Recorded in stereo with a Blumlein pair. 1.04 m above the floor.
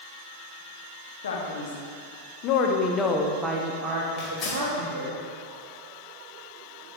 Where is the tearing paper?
25° left, 2.5 m.